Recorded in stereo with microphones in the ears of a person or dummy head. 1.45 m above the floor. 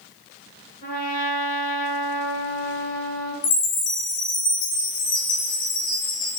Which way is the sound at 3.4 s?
65° left (ahead or behind).